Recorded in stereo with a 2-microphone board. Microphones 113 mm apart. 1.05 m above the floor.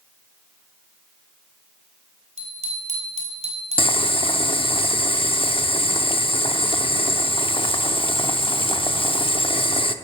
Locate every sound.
2.4 s a bicycle bell: 85° right, 3.5 m
3.8 s boiling: 50° left (ahead or behind), 0.8 m